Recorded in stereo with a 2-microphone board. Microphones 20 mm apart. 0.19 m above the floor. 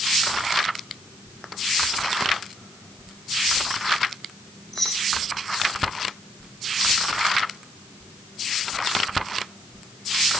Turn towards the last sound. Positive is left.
turn(degrees=35)  # may be behind; listen again after turning